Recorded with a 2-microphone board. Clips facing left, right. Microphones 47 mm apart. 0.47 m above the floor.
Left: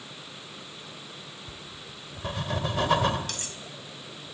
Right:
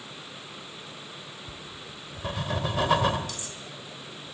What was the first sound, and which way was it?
Writing, 5° right (ahead or behind).